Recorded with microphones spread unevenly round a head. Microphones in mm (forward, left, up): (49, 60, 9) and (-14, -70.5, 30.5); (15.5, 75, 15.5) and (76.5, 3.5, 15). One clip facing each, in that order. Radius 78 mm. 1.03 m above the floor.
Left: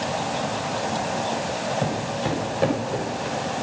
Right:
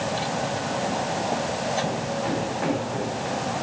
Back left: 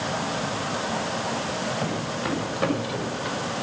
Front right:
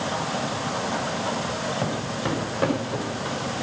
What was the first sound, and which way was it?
Footsteps, 15° left.